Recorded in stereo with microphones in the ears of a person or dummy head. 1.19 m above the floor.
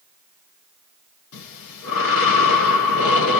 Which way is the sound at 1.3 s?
80° left.